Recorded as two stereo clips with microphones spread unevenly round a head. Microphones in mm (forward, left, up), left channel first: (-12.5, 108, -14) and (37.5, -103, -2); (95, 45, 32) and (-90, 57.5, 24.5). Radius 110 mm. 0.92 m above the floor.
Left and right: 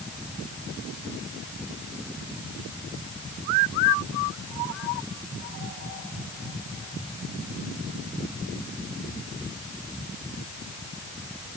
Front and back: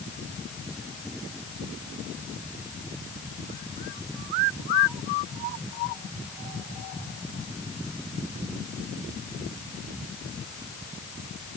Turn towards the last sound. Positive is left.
No sound to turn to.